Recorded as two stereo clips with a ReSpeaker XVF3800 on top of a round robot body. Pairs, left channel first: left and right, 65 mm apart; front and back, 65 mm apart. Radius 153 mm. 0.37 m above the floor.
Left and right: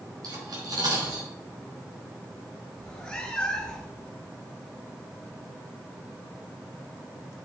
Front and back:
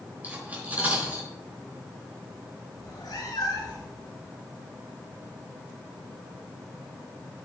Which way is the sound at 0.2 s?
115° right.